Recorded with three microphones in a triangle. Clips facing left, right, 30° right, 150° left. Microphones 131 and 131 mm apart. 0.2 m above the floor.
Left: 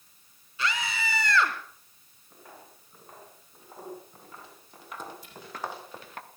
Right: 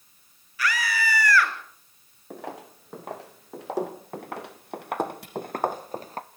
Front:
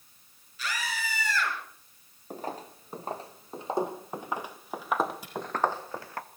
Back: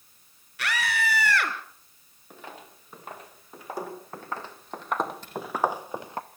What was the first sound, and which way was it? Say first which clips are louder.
A scream: right 4 dB, back 6 dB; 155° left.